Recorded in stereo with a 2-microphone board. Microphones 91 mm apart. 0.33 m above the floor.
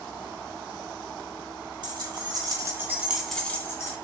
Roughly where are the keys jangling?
Right.